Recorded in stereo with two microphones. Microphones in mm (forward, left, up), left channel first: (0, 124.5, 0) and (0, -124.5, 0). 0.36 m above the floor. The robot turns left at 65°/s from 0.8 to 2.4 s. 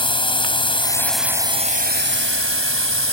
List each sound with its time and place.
0.0 s a drone: 25° left; by 3.1 s 80° right